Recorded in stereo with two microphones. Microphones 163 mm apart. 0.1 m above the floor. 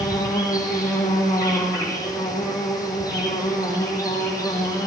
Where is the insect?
20° left (ahead or behind), 7.5 m.